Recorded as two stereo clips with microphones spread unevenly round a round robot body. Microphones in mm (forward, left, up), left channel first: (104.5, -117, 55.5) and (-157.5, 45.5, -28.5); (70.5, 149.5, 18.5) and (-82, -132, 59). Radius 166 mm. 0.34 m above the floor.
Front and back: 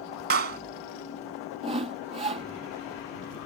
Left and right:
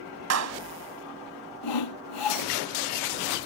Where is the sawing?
75° left.